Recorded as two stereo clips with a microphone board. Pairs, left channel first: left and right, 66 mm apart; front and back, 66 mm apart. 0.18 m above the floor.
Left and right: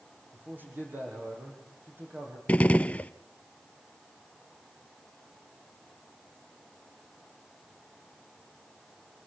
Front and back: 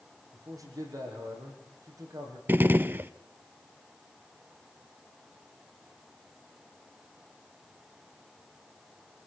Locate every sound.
0.3 s a man speaking: 150° right, 7.5 m
2.5 s a gunshot: 145° left, 0.5 m